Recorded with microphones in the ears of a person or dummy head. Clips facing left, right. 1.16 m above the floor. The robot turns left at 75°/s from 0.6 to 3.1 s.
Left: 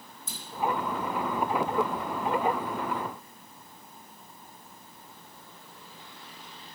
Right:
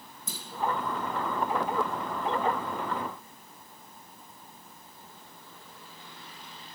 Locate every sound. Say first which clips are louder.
0.3 s a clunk: right 2 dB; 80° right, 1.9 m